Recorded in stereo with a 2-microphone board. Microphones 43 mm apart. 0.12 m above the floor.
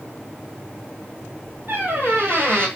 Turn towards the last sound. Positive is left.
turn(degrees=-50)  # may be behind; listen again after turning